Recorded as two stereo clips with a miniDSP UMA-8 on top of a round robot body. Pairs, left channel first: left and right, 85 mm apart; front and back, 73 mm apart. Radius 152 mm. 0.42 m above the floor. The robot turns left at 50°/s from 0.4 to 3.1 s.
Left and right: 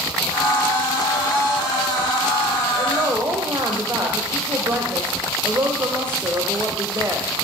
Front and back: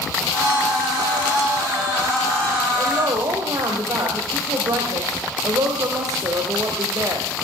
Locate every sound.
2.8 s a woman speaking: 130° right, 2.5 m; by 7.3 s 150° right, 2.5 m